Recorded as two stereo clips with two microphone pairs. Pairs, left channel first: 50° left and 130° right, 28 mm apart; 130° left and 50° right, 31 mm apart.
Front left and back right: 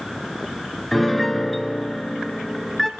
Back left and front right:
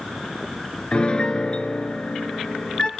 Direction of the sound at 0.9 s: 135° left.